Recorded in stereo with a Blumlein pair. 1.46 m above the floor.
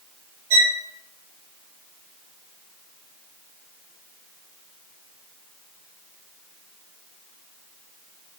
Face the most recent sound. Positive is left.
turn(degrees=-55)